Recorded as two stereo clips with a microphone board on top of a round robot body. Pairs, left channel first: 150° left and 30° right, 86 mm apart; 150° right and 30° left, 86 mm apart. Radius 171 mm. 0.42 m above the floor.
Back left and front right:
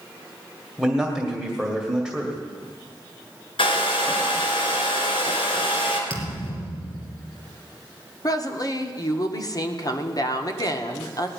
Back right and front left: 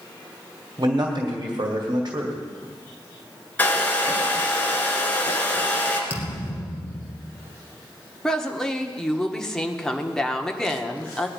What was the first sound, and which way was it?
A man speaking, 65° left.